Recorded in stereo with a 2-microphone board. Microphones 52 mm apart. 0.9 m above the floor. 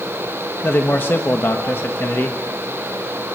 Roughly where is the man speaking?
Left.